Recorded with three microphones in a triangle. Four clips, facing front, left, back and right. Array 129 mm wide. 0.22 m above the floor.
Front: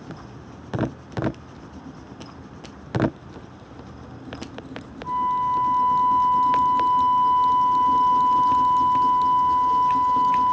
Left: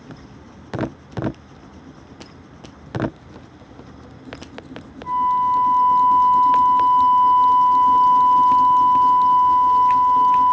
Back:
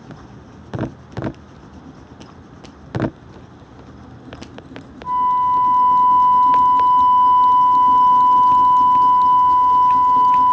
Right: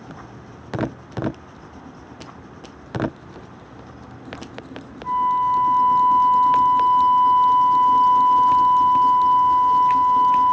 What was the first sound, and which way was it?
A flute, 140° right.